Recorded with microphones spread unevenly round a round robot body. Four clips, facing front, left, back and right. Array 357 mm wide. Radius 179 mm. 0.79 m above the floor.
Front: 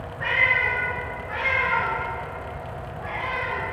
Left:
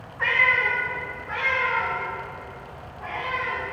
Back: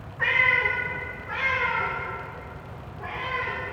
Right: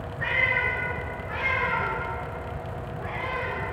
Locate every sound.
0.2 s a cat meowing: 170° right, 2 m; by 3.6 s 125° right, 4.5 m